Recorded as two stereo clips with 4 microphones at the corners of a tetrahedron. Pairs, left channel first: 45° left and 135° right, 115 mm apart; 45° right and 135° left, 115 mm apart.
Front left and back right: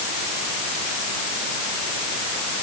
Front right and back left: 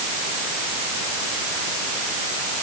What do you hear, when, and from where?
Only background noise.